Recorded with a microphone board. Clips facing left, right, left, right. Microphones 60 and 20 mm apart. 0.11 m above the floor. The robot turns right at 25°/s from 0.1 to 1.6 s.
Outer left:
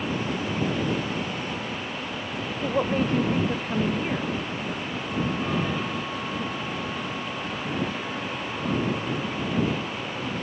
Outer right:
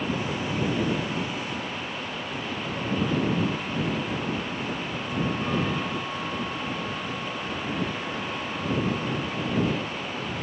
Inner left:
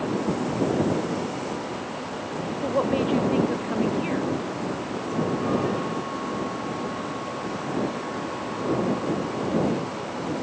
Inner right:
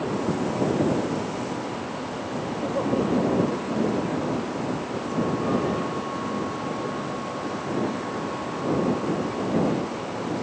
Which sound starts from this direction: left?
A woman speaking, at 2.6 s.